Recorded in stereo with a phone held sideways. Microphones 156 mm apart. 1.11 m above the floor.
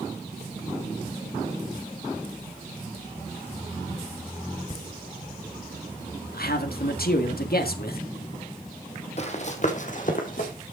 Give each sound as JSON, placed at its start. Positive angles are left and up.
{"t": 4.7, "sound": "laughter", "side_deg": 40, "distance_m": 0.7}
{"t": 6.3, "sound": "a man speaking", "side_deg": 75, "distance_m": 1.8}
{"t": 9.2, "sound": "running footsteps", "side_deg": 45, "distance_m": 1.6}